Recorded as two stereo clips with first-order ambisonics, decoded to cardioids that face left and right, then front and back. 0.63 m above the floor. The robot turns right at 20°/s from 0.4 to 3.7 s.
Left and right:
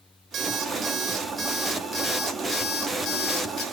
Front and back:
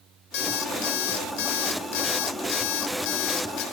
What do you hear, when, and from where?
0.3 s an alarm clock: 30° right, 2.0 m; by 3.6 s 35° left, 2.0 m